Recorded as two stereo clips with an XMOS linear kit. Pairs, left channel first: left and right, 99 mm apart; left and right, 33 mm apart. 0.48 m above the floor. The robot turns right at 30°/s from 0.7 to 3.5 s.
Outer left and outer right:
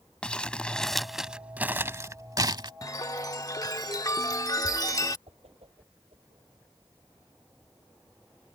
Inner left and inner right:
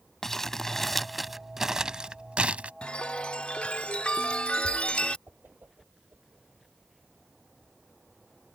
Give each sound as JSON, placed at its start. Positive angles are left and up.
{"t": 0.2, "sound": "crumpling", "azimuth_deg": 170}
{"t": 2.8, "sound": "a chime", "side_deg": 35}
{"t": 5.3, "sound": "a whoosh", "side_deg": -75}